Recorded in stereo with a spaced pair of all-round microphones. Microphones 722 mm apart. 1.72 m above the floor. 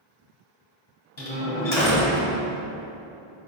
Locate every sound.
1.2 s a door slam: 65° left (ahead or behind), 1.4 m